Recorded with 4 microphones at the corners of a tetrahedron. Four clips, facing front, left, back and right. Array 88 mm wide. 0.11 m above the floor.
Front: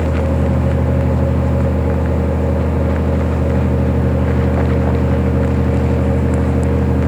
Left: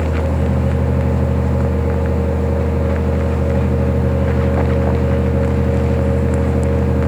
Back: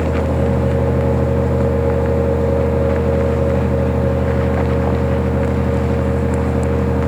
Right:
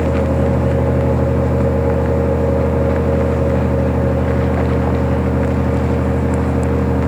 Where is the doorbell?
I don't hear a doorbell.